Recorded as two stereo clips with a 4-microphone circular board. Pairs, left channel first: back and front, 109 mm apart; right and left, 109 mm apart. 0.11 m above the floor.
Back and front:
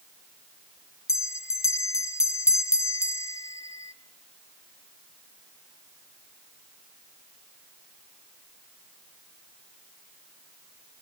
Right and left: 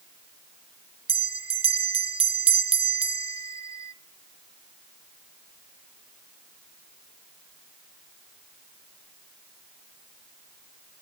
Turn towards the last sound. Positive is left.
turn(degrees=120)